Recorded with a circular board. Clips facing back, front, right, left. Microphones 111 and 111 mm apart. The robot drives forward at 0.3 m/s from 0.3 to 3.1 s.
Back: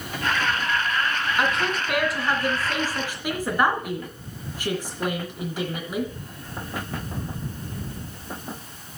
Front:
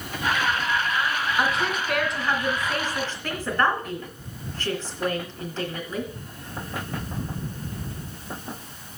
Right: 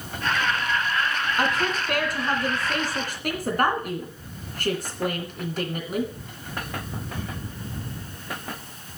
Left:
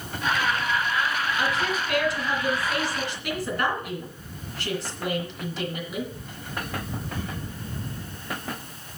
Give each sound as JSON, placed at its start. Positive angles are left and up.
{"t": 1.4, "sound": "a woman speaking", "azimuth_deg": -90, "distance_m": 2.5}